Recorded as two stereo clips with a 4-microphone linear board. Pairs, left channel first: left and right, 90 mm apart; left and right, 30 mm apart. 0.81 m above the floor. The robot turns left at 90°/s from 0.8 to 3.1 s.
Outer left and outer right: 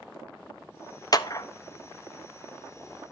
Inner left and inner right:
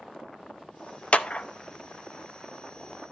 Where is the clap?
45° left (ahead or behind), 0.6 m; by 1.5 s 35° left (ahead or behind), 0.6 m.